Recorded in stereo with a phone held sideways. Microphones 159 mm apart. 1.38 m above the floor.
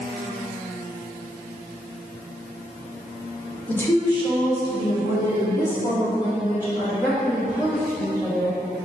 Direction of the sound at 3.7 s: 10° left (ahead or behind).